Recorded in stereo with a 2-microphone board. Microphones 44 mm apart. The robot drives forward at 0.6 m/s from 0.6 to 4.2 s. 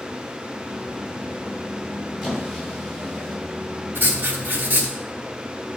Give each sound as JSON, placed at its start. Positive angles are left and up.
{"t": 2.2, "sound": "a squeak", "side_deg": 0, "distance_m": 3.0}
{"t": 4.0, "sound": "writing", "side_deg": -55, "distance_m": 1.2}